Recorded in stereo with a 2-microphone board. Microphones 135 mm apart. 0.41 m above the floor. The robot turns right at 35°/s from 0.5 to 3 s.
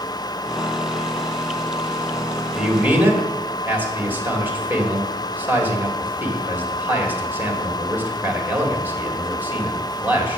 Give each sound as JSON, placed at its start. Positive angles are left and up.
{"t": 2.5, "sound": "a man speaking", "side_deg": -5, "distance_m": 1.6}